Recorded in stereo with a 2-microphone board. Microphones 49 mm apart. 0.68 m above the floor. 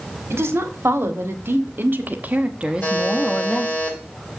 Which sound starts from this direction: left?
A buzzer, at 2.8 s.